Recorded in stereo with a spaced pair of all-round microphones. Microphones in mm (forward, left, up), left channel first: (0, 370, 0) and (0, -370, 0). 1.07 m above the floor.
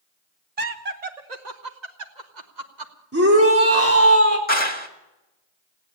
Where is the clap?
10° left (ahead or behind), 1.8 m.